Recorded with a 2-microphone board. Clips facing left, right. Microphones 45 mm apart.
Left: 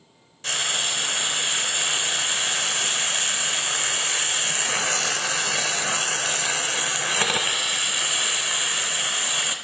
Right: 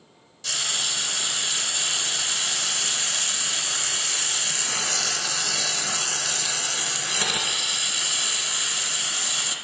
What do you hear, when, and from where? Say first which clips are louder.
0.4 s frying: left 3 dB; 35° left (ahead or behind), 0.5 m